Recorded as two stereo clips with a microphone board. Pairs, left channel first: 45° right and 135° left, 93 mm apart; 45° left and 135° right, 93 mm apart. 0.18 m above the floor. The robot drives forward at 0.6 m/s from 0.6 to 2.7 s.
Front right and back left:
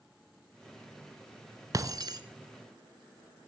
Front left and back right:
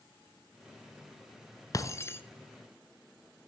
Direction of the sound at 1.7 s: 90° left.